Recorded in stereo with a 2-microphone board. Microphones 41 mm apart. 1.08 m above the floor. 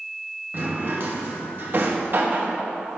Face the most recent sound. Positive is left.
turn(degrees=-50)  # may be behind; listen again after turning